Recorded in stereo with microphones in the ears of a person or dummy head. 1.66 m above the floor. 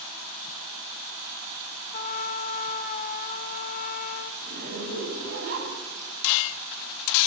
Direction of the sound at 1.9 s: 40° left (ahead or behind).